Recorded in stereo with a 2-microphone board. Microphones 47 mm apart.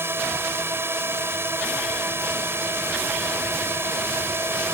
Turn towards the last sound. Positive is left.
turn(degrees=-65)  # may be behind; listen again after turning